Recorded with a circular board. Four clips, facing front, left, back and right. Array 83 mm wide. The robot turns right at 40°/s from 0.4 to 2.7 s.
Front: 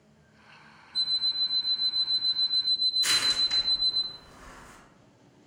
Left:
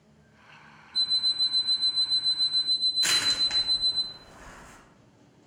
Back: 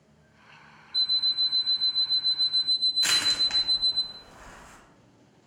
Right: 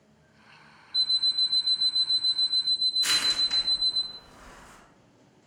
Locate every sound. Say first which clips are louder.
0.9 s an alarm clock: right 1 dB, back 2 dB; 55° left, 0.6 m; by 4.0 s 125° left, 0.6 m
3.0 s crushing: left 1 dB, back 1 dB; 145° left, 1.5 m